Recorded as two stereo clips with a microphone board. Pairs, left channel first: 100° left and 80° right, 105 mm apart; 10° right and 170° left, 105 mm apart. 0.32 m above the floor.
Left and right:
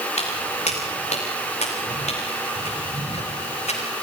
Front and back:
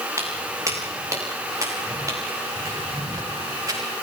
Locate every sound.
0.2 s footsteps: 105° left, 8 m; by 3.8 s 110° left, 10.5 m